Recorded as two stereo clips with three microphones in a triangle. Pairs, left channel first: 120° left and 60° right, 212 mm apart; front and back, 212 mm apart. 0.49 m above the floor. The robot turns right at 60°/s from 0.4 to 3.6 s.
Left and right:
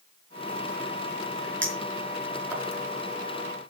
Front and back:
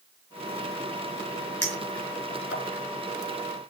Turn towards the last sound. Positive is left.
turn(degrees=85)